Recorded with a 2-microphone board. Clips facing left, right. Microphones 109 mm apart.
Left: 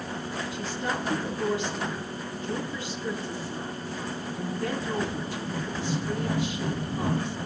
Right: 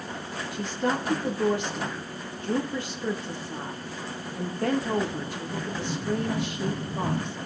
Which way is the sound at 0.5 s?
55° right (ahead or behind).